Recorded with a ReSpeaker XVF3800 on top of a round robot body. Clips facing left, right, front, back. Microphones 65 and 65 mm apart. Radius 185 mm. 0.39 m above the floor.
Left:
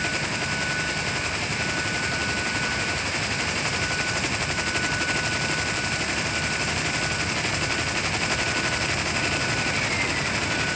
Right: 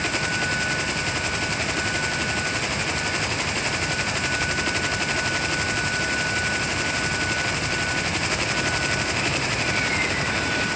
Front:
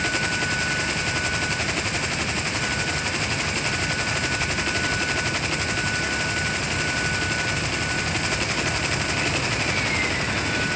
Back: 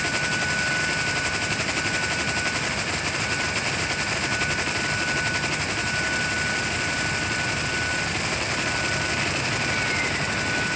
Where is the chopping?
No chopping in this recording.